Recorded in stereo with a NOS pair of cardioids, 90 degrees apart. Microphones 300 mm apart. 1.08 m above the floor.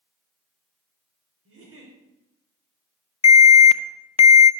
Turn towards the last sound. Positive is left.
turn(degrees=20)